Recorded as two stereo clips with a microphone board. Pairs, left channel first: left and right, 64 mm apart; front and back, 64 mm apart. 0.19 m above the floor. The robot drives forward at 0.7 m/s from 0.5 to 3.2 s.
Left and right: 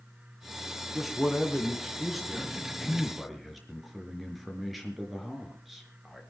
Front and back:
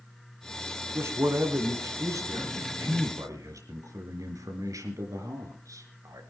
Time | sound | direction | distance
0.9 | a man speaking | 175° right | 2 m